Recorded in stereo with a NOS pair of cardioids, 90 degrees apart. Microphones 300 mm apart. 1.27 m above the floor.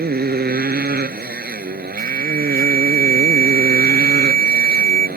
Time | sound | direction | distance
0.0 | a motorcycle | 30° right | ?
2.0 | an alarm | 70° right | ?